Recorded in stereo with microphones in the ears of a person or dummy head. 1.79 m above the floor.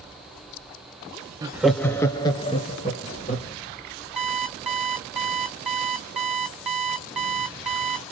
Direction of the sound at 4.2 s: 5° right (ahead or behind).